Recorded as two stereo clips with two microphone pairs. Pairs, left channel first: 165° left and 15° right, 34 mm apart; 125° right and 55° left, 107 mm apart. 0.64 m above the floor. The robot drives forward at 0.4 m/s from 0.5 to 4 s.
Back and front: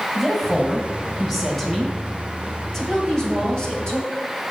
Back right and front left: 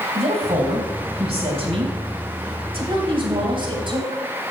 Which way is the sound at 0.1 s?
70° left.